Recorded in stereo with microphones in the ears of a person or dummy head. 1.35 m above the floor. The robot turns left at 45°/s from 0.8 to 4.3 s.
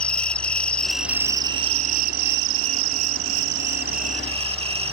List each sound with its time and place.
0.0 s an insect: 5° left; by 4.9 s 150° right